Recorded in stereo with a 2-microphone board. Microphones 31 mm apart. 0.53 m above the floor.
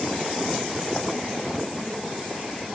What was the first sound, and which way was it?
Only background noise.